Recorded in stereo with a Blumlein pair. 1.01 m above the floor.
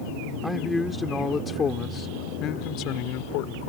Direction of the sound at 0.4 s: Straight ahead.